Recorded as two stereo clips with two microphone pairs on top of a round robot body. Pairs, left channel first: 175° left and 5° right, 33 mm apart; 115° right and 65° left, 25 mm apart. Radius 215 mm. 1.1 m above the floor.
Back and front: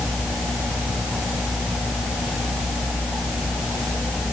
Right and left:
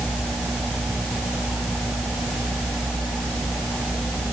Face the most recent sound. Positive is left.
No sound to turn to.